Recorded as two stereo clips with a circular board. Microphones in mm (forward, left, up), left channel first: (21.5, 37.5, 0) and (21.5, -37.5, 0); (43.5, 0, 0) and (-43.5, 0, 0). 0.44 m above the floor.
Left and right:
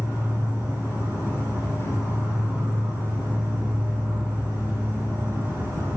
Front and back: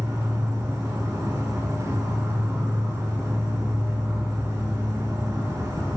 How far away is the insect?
About 1.4 m.